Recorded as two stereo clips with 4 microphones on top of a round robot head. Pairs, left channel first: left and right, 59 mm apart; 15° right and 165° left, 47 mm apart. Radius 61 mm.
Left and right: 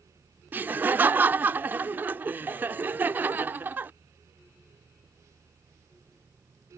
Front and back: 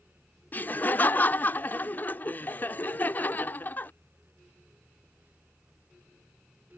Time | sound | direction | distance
0.5 | laughter | 45° right | ?